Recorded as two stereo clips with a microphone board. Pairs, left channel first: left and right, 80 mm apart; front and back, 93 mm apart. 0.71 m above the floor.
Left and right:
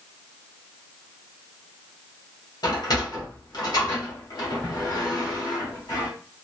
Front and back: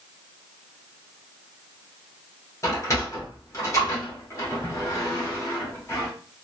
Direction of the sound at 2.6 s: 55° left.